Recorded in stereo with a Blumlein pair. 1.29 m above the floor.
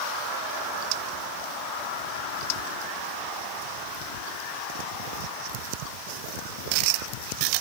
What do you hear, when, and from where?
Only background noise.